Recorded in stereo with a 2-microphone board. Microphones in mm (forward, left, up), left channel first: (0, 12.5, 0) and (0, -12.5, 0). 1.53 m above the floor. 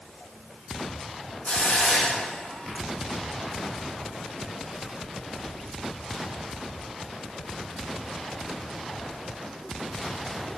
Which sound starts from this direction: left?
A hiss, at 1.4 s.